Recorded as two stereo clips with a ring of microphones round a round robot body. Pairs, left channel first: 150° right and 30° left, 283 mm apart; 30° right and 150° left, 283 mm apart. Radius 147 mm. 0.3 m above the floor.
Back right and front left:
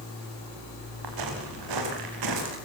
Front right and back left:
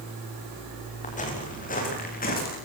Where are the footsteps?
35° left, 9 m; by 2.6 s 30° left, 10 m.